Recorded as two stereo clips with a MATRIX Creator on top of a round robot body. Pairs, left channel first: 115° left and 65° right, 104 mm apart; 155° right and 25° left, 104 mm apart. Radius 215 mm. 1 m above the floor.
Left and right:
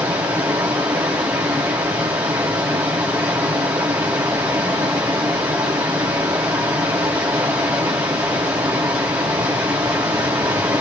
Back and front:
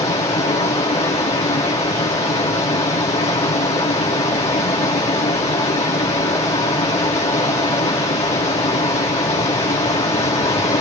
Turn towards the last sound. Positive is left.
turn(degrees=-135)